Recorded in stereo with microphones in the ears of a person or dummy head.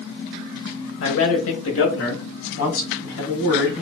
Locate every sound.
1.0 s a man speaking: 85° left, 0.7 m; by 3.8 s 75° left (ahead or behind), 2 m